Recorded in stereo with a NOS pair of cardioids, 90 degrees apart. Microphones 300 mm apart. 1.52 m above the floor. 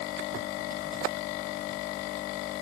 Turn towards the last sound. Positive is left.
No sound to turn to.